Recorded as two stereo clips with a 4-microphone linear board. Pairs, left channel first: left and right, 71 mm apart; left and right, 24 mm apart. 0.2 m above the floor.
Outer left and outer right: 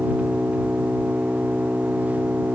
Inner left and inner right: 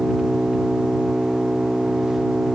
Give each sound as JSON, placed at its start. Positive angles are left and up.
{"t": 0.0, "sound": "an engine running", "side_deg": -20}